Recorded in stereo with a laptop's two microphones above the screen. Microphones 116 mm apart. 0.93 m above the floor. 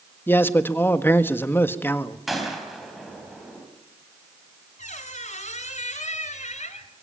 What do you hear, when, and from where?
0.3 s a man speaking: 20° left (ahead or behind), 1.5 m
2.3 s a gunshot: centre (ahead or behind), 3.5 m
4.8 s a squeak: 80° left, 2 m